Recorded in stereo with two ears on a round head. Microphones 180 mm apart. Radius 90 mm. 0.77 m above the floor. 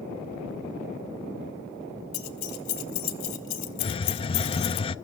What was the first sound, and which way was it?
Keys jangling, 80° left.